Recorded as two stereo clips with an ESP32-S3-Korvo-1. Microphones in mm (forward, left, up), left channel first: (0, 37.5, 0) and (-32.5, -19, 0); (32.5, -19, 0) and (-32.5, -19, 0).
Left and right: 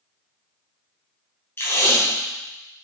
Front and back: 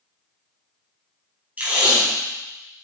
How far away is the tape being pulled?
About 4 m.